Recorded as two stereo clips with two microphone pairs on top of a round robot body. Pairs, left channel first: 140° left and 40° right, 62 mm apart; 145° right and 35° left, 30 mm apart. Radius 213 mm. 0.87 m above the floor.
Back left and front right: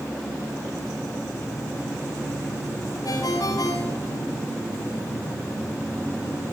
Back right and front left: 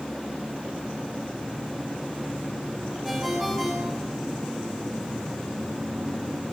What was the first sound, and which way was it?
A ringtone, 120° left.